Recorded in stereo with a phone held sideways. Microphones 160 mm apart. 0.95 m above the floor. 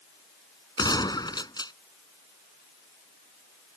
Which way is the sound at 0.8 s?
25° left (ahead or behind).